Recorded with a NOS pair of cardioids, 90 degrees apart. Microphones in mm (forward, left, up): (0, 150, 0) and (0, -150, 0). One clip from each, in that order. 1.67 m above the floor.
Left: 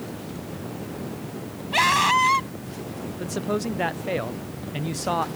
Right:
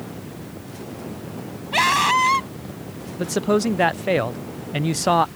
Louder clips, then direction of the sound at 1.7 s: Right 1 dB; 15° right.